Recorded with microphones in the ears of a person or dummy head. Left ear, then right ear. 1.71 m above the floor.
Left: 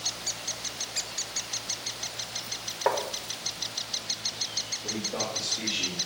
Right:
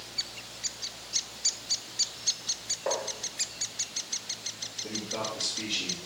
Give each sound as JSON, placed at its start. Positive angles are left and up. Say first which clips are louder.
{"t": 2.9, "sound": "tapping", "louder": "left 5 dB", "side_deg": 45, "distance_m": 0.8}
{"t": 4.8, "sound": "a man speaking", "louder": "left 2 dB", "side_deg": -10, "distance_m": 2.5}